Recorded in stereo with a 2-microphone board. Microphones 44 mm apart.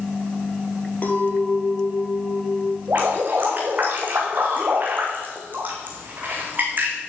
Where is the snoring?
I don't hear snoring.